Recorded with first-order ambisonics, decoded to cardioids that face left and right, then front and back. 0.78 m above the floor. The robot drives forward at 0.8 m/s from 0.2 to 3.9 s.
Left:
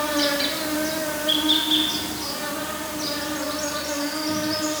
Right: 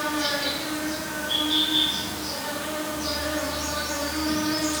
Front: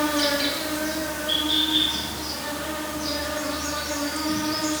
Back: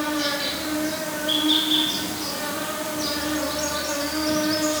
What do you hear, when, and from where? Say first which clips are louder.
0.0 s an insect: left 3 dB, front 2 dB; 65° left, 1.4 m; by 4.8 s 155° left, 2.5 m